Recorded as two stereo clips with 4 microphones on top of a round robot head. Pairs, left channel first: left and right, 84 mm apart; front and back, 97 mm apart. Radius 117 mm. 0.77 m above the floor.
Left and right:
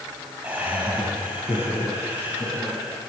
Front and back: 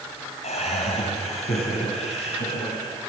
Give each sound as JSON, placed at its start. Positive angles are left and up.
{"t": 0.4, "sound": "laughter", "azimuth_deg": -15, "distance_m": 4.5}